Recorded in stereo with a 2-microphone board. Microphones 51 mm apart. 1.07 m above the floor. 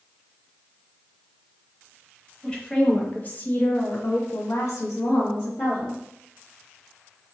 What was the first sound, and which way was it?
A woman speaking, 20° left (ahead or behind).